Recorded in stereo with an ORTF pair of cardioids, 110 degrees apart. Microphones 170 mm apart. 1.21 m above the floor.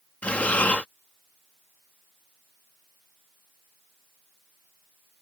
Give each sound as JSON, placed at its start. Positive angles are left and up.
{"t": 0.2, "sound": "breathing", "azimuth_deg": 10}